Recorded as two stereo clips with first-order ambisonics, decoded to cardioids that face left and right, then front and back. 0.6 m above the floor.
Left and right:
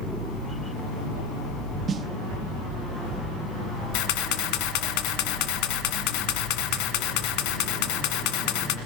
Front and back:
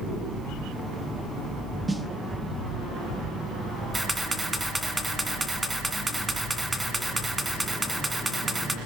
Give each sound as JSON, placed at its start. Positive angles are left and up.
{"t": 1.9, "sound": "a snare drum", "azimuth_deg": -95, "distance_m": 1.0}
{"t": 3.9, "sound": "a camera shutter", "azimuth_deg": 95, "distance_m": 1.8}